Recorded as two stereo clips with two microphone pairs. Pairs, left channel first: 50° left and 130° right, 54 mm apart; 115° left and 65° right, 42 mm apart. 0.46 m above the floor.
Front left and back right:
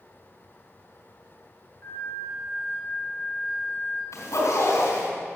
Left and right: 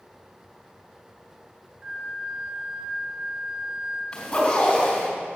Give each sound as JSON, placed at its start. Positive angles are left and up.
{"t": 1.8, "sound": "a flute", "azimuth_deg": 15, "distance_m": 2.5}
{"t": 4.1, "sound": "a zipper", "azimuth_deg": 35, "distance_m": 3.5}